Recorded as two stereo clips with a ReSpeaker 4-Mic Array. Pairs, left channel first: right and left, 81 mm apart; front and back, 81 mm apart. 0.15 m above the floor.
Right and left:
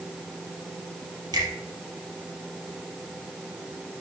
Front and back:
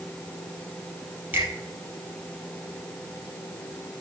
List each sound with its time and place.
1.3 s a finger snap: 115° left, 3 m